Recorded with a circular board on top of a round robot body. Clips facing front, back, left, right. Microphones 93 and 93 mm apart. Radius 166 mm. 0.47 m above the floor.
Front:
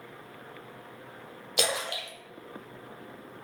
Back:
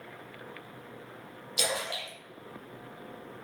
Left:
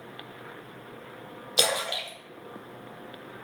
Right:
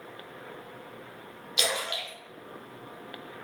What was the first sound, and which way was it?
A splash, 35° left.